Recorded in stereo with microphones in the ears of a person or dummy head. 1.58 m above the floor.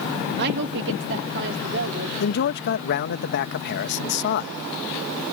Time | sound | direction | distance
0.4 | a woman speaking | 60° right (ahead or behind) | ?
2.2 | a man speaking | 60° left (ahead or behind) | ?